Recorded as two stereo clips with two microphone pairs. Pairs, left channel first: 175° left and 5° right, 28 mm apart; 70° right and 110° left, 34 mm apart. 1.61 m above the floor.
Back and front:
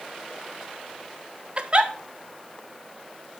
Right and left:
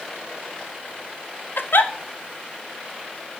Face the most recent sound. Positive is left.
turn(degrees=-60)